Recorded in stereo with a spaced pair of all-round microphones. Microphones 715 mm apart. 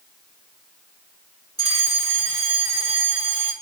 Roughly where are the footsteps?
No footsteps in this recording.